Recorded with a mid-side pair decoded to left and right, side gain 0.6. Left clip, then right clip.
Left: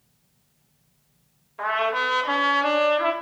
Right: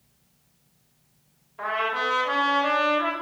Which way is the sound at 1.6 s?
25° left.